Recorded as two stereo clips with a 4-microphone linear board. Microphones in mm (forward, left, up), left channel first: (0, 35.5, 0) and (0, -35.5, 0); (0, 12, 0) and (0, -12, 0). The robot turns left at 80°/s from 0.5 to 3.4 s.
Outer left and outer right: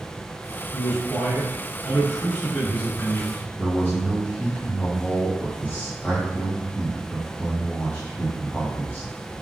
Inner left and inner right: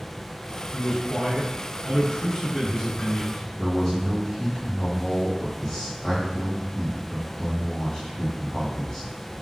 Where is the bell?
No bell in this recording.